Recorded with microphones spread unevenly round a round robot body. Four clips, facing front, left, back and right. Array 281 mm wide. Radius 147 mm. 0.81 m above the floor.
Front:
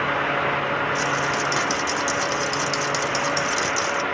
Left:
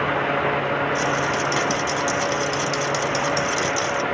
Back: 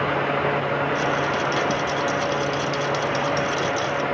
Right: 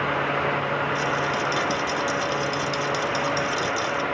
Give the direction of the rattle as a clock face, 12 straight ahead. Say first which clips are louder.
Left 2 dB, back 1 dB; 10 o'clock.